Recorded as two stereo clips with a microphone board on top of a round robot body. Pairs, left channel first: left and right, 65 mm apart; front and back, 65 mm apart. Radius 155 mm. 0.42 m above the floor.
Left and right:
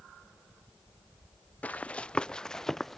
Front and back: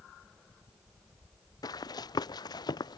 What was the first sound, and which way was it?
Running footsteps, 20° left.